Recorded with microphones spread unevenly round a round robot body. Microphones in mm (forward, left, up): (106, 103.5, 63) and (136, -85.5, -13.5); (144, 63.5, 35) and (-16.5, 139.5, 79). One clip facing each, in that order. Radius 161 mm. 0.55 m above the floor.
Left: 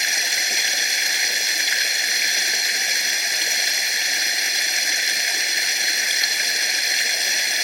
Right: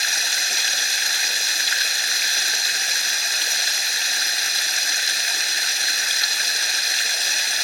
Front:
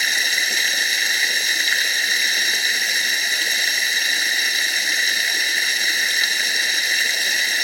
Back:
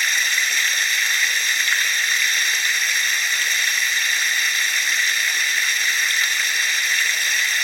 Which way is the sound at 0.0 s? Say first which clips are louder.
Left 2 dB, front 2 dB; 30° left.